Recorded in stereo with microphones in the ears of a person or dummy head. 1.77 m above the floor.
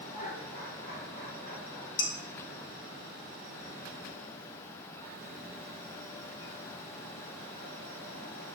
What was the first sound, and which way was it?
Laughter, 40° left (ahead or behind).